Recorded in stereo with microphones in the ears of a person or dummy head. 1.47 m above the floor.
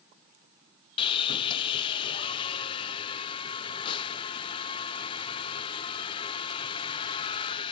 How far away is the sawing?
About 0.6 m.